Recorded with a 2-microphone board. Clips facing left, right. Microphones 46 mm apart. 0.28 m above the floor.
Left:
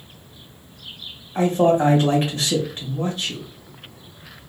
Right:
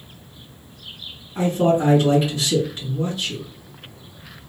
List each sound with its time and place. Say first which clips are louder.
1.4 s a man speaking: left 2 dB; 45° left (ahead or behind), 1.6 m